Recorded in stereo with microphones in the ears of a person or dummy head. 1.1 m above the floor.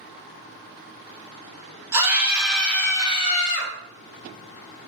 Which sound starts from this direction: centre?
A scream, at 1.9 s.